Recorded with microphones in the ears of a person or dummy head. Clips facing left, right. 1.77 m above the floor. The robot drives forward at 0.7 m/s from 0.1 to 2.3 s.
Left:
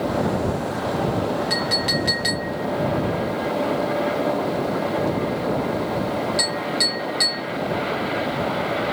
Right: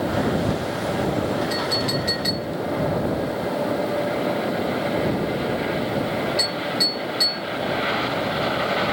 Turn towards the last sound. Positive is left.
turn(degrees=15)  # may be behind; listen again after turning